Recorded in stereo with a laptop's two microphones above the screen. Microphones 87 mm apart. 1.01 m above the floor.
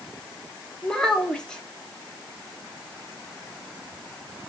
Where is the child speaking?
5° left (ahead or behind), 1.4 m.